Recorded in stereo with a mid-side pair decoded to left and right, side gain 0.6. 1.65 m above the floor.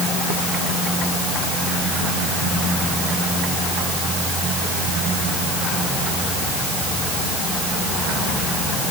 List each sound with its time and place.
Only background noise.